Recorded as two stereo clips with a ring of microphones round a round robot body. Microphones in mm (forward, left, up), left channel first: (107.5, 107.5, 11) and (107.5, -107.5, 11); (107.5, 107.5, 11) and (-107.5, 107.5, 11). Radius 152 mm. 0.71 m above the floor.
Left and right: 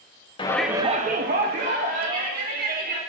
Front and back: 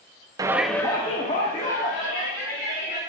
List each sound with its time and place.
0.4 s a shout: 125° left, 0.6 m; by 3.0 s 60° right, 2.5 m